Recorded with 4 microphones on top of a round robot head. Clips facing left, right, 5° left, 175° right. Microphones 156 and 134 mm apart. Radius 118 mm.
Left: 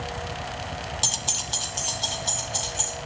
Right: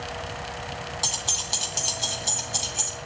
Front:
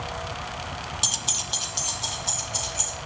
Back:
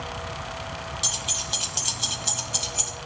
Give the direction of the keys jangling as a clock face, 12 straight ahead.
11 o'clock.